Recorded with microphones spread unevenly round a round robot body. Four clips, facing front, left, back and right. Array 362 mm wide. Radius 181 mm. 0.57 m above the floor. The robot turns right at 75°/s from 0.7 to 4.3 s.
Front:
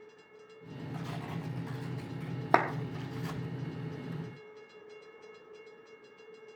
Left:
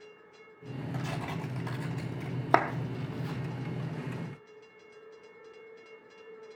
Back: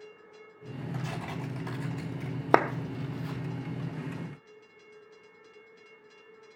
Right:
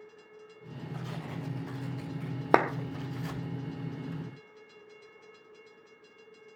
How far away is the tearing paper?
About 4 m.